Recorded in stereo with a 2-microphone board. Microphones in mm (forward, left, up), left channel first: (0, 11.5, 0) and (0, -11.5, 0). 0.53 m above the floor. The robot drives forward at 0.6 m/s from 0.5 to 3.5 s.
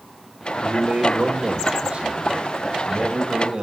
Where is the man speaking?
60° right (ahead or behind), 1.7 m; by 3.6 s 35° right (ahead or behind), 2.5 m.